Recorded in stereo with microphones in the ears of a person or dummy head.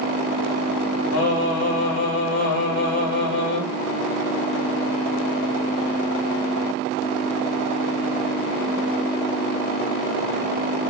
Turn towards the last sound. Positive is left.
turn(degrees=70)  # may be behind; listen again after turning